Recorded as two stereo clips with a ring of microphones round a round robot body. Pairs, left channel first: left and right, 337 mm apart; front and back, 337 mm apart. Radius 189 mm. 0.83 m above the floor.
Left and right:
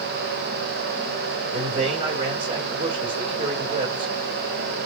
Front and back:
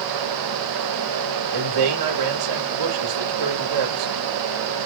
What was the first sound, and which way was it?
A man speaking, 165° right.